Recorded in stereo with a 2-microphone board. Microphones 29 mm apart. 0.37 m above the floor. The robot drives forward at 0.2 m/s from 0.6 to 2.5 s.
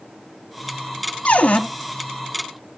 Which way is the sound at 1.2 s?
55° left (ahead or behind).